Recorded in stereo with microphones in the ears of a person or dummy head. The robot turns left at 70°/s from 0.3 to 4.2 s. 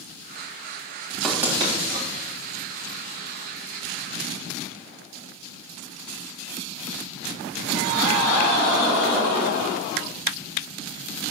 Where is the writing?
5° left (ahead or behind), 3.5 m; by 2.1 s 50° right (ahead or behind), 3.5 m.